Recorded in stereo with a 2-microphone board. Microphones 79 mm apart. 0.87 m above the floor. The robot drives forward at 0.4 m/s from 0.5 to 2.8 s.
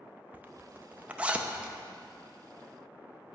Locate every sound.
0.3 s a zipper: 20° right (ahead or behind), 0.5 m; by 1.7 s 15° right (ahead or behind), 0.8 m